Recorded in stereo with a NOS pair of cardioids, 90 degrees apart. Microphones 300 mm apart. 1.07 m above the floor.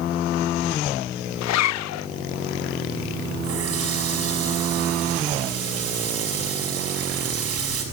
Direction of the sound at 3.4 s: 55° right.